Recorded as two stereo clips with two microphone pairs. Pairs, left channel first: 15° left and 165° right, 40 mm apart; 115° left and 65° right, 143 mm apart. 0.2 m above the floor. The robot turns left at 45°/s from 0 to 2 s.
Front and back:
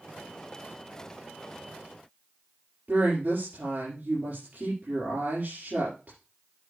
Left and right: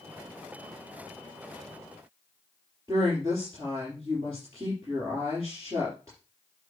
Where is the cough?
I don't hear a cough.